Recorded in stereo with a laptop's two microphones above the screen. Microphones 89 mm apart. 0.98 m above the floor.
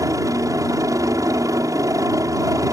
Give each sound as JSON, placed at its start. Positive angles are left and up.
{"t": 0.0, "sound": "a helicopter", "side_deg": -35}